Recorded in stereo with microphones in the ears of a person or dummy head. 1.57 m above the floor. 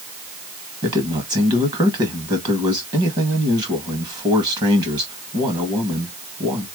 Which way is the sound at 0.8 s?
20° right (ahead or behind).